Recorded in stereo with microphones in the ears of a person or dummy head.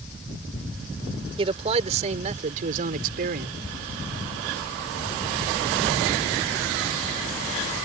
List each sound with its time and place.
1.4 s a man speaking: 35° right (ahead or behind); by 3.6 s 60° right (ahead or behind)